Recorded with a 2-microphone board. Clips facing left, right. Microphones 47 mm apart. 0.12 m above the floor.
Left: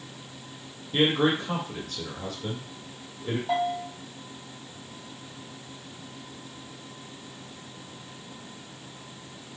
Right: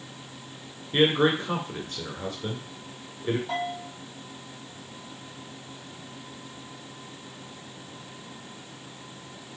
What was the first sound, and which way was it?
A man speaking, 25° right (ahead or behind).